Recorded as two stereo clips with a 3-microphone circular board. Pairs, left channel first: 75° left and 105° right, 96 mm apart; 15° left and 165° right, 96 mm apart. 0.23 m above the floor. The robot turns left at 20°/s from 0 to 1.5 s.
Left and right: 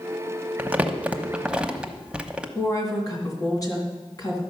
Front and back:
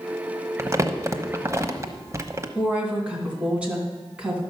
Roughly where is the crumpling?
Behind right.